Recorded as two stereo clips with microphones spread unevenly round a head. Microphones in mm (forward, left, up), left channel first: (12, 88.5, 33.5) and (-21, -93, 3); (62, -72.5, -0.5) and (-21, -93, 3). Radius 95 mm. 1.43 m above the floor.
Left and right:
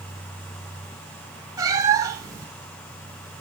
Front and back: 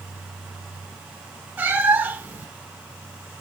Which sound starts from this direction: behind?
A cat meowing, at 1.6 s.